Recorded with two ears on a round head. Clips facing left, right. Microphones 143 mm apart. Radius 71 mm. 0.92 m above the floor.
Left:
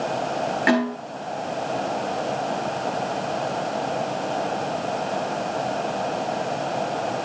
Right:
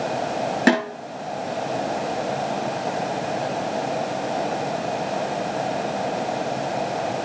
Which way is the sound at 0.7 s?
50° right (ahead or behind).